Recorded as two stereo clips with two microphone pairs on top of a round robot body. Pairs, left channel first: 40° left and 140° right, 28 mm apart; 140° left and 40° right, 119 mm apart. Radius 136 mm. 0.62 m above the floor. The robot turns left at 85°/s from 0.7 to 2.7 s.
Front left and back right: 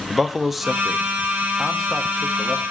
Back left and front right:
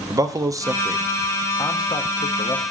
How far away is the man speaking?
About 0.9 m.